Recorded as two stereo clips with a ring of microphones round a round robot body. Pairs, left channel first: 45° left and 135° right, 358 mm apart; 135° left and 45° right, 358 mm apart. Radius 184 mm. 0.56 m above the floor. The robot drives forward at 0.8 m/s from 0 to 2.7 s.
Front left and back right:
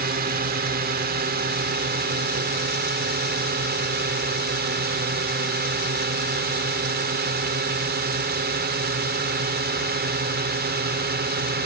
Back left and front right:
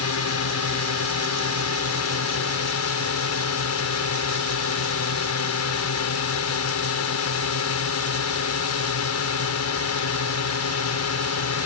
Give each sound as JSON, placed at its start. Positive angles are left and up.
{"t": 0.0, "sound": "a drone", "azimuth_deg": 170}